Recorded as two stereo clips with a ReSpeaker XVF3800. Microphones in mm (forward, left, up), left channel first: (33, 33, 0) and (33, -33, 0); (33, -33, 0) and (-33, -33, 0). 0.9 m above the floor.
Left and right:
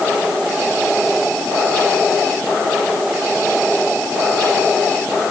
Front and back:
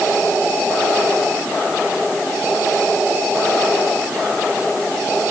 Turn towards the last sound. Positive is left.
No sound to turn to.